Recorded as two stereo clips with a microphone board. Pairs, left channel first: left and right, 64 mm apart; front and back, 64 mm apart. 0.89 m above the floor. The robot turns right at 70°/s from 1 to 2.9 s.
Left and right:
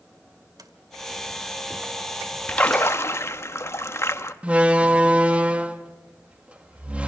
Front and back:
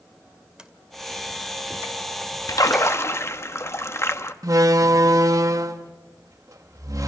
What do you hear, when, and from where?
0.6 s a sliding door: 100° right, 2 m
2.5 s a splash: 15° left, 1.0 m; by 4.3 s 45° left, 1.0 m
4.4 s a door slam: 160° right, 1.1 m